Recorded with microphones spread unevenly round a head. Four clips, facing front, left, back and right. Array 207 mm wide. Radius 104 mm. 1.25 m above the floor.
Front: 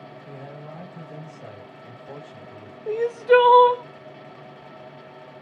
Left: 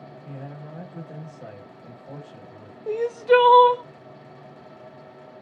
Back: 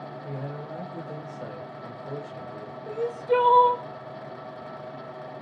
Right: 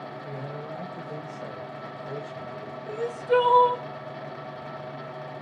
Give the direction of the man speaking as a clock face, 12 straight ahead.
6 o'clock.